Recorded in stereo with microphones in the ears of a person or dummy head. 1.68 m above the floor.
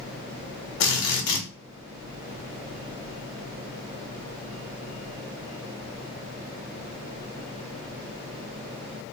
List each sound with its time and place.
0.8 s a drill: 60° left (ahead or behind), 1.4 m